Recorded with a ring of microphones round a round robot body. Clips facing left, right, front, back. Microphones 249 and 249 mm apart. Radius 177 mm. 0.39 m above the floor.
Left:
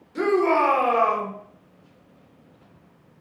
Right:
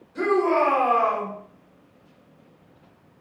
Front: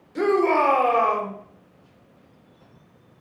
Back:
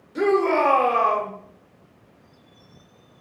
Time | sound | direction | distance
0.1 | a shout | 95° left | 1.0 m